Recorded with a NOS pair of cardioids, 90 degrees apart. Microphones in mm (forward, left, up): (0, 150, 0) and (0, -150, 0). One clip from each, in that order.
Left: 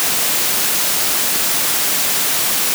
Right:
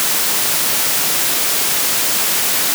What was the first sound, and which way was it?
Only background noise.